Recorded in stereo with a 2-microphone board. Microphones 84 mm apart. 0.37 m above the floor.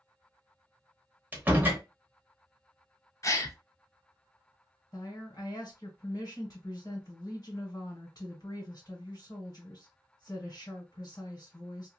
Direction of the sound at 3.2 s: 35° left (ahead or behind).